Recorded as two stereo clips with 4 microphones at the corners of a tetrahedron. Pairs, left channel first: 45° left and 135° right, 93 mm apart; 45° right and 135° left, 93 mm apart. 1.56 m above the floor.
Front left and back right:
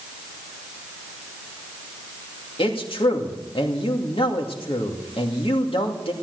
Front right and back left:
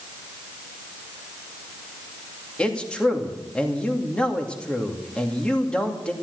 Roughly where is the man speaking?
Ahead left.